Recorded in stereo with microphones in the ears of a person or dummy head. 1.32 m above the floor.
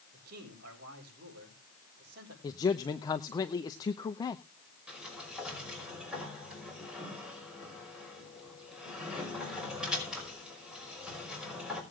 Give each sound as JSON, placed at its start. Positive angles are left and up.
{"t": 0.1, "sound": "a man speaking", "side_deg": -55, "distance_m": 5.5}
{"t": 2.4, "sound": "a man speaking", "side_deg": 20, "distance_m": 0.8}
{"t": 4.9, "sound": "a sliding door", "side_deg": -5, "distance_m": 5.0}